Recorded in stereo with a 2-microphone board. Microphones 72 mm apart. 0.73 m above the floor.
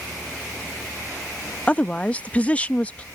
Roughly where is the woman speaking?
Left.